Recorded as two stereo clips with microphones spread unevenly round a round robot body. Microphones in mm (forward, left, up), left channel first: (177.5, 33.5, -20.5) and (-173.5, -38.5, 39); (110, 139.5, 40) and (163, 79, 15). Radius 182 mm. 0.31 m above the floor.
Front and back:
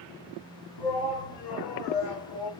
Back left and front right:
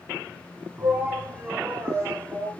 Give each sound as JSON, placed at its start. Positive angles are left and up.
{"t": 0.8, "sound": "a shout", "azimuth_deg": 10, "distance_m": 4.0}